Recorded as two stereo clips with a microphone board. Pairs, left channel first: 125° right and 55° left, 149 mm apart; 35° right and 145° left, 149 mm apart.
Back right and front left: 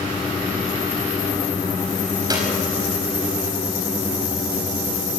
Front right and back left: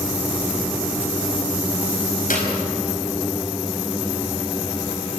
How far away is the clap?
About 5 m.